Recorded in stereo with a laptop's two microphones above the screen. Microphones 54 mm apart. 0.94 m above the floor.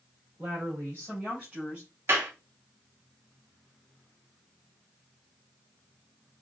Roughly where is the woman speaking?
Right.